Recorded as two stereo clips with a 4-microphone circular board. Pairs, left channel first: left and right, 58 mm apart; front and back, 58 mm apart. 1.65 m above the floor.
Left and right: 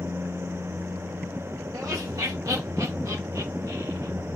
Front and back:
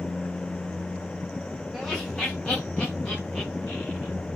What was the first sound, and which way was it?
Laughter, 85° right.